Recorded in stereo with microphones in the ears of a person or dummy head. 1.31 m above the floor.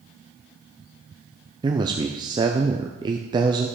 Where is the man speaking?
20° right (ahead or behind), 0.5 m.